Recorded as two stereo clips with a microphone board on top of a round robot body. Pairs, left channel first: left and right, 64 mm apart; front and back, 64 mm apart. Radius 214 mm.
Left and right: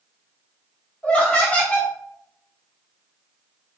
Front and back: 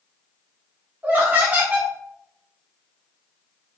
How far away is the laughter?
About 1.0 m.